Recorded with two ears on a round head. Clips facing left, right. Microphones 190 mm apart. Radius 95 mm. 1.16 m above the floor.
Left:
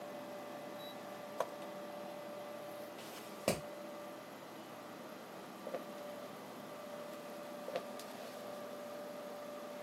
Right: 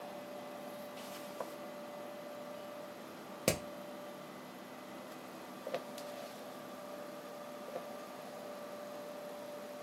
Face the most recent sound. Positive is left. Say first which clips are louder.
# right 2 dB
turn(degrees=-25)  # may be behind; listen again after turning